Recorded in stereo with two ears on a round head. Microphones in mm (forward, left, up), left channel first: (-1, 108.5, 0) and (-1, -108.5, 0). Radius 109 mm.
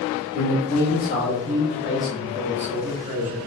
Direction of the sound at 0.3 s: 50° left (ahead or behind).